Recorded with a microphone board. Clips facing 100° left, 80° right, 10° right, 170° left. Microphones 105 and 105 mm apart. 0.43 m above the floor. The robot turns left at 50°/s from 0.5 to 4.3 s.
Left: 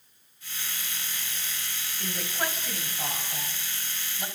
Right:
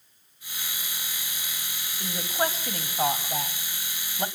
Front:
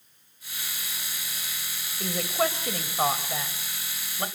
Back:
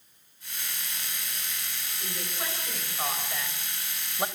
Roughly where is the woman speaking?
Ahead.